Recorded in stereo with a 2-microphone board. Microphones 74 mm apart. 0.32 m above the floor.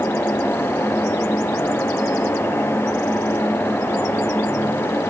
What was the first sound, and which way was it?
Only background noise.